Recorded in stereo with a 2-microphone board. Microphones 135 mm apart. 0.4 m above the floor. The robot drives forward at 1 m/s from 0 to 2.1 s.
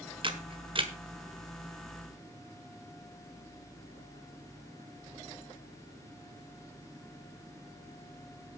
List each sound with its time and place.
0.2 s a camera shutter: 40° right (ahead or behind), 1.6 m